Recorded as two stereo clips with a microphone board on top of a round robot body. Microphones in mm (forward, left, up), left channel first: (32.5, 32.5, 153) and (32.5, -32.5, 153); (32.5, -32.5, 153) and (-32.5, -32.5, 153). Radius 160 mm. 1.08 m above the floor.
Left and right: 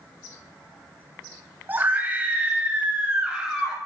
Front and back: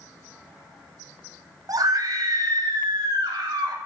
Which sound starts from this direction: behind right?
A scream, at 1.7 s.